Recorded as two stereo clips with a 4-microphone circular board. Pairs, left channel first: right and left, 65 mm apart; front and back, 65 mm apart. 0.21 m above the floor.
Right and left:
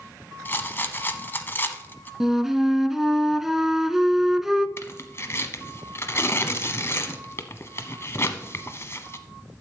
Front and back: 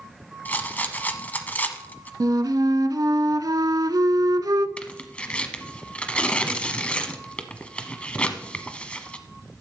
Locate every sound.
0.5 s a rattle: 50° right, 0.9 m
2.2 s a flute: 175° left, 0.5 m
4.8 s tearing paper: 65° right, 0.9 m